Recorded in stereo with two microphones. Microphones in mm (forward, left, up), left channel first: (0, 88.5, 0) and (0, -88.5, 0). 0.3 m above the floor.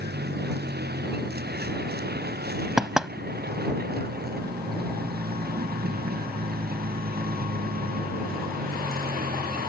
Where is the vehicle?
65° right (ahead or behind); by 9.7 s 55° right (ahead or behind).